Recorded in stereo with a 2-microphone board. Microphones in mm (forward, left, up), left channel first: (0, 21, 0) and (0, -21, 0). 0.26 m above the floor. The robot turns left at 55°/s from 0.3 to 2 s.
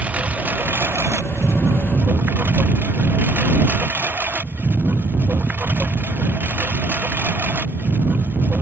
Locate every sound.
0.0 s a lawn mower: 30° right (ahead or behind); by 8.6 s 50° right (ahead or behind)